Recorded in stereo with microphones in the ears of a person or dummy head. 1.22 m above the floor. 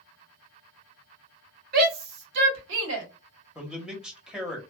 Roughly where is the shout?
Right.